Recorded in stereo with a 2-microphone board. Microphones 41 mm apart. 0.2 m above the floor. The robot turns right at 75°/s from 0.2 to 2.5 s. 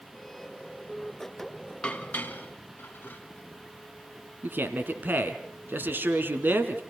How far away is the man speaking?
About 1.9 m.